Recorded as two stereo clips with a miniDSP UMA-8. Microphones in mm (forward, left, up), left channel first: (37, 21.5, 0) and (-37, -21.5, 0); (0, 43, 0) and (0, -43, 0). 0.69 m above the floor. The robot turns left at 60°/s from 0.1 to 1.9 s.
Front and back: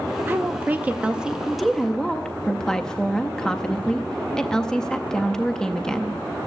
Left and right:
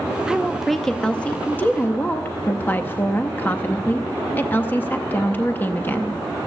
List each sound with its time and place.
0.3 s a woman speaking: 160° right, 0.5 m; by 6.2 s 100° left, 0.5 m